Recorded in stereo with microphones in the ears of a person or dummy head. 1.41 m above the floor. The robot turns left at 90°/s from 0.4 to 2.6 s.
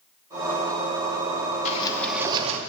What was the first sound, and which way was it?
A sliding door, 40° left.